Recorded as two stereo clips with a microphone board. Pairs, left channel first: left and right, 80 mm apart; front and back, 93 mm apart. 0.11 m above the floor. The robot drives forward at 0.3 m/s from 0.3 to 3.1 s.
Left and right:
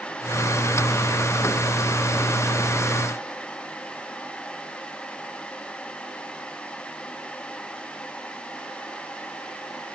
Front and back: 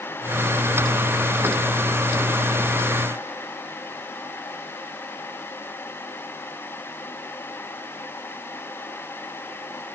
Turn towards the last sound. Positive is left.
No sound to turn to.